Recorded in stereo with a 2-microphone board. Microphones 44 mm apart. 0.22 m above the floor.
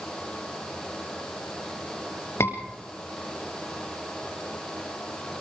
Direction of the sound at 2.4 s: 75° left (ahead or behind).